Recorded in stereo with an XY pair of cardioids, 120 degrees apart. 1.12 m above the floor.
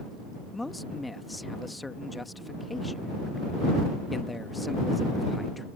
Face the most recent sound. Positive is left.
turn(degrees=10)